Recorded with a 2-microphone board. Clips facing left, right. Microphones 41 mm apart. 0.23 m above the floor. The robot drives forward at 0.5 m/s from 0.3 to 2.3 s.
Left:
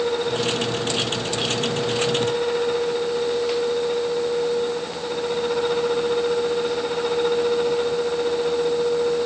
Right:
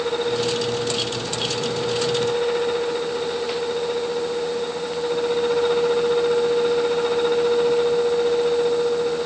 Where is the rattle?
No rattle in this recording.